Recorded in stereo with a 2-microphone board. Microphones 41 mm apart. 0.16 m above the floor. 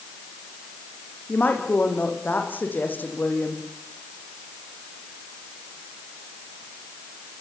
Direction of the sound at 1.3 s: 45° left (ahead or behind).